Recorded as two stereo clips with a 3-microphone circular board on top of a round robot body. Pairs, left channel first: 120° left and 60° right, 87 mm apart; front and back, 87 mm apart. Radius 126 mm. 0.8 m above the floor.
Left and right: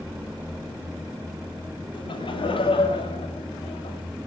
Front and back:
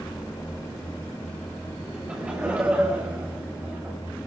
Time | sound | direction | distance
1.9 | laughter | 100° left | 5 m